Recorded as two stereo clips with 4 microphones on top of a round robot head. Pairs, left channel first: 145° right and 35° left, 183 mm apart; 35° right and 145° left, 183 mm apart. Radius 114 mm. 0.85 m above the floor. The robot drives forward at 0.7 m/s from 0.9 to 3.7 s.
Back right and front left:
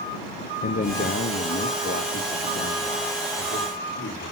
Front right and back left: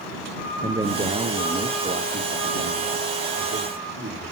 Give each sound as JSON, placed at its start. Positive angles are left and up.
{"t": 0.6, "sound": "a man speaking", "azimuth_deg": -150, "distance_m": 0.9}